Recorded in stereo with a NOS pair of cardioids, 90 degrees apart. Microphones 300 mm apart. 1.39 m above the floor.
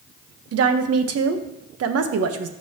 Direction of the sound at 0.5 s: 55° right.